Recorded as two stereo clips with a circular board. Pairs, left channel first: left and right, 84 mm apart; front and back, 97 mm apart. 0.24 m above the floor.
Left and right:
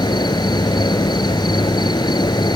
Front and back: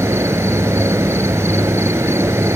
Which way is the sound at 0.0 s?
120° left.